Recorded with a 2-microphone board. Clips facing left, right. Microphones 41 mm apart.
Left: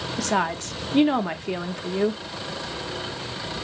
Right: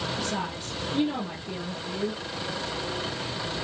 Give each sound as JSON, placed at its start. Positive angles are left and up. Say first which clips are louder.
{"t": 0.2, "sound": "a woman speaking", "louder": "left 7 dB", "side_deg": 80, "distance_m": 1.0}